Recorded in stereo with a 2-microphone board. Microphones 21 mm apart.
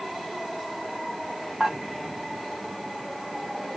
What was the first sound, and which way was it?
Dishes clattering, 35° right (ahead or behind).